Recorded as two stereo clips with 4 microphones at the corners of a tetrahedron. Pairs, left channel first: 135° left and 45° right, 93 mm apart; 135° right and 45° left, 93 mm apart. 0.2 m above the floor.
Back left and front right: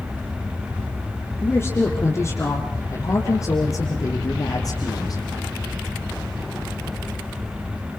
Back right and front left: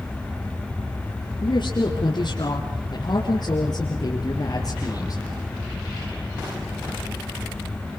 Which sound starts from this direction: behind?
A woman speaking, at 1.4 s.